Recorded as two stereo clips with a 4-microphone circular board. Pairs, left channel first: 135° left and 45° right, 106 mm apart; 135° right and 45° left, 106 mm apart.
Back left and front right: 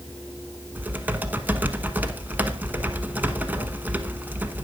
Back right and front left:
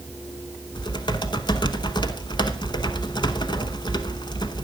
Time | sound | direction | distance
0.8 | typing on a keyboard | 115° right | 1.0 m